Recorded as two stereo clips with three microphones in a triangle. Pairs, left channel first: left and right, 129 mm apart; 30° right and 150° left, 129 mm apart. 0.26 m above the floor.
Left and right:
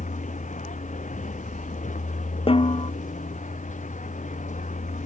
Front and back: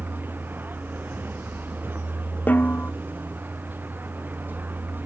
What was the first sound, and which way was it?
A vehicle, 75° left.